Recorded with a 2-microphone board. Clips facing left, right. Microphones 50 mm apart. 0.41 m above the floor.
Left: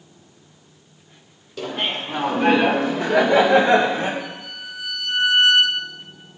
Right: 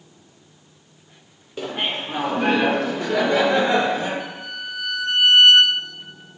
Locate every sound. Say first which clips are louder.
1.6 s laughter: even; 25° right (ahead or behind), 1.5 m; by 4.1 s 40° left (ahead or behind), 2.0 m
4.2 s a violin: right 2 dB; 70° right (ahead or behind), 2.5 m